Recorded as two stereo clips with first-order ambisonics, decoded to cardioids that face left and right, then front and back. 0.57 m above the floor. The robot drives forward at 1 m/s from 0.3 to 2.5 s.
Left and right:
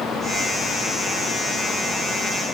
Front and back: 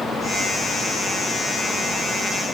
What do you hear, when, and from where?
Only background noise.